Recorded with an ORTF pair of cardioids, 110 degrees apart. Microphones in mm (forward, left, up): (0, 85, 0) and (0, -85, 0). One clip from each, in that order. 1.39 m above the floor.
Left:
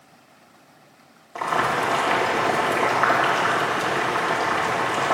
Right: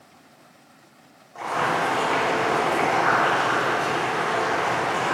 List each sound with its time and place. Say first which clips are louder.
1.4 s boiling: left 2 dB; 60° left, 2.5 m